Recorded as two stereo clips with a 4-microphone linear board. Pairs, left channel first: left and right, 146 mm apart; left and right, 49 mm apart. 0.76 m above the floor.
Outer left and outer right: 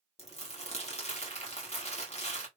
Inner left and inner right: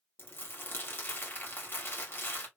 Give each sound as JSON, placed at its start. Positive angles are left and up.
{"t": 0.2, "sound": "crumpling", "side_deg": 45, "distance_m": 1.3}